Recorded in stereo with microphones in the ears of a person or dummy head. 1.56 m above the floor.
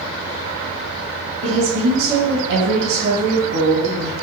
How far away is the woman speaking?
About 2.5 m.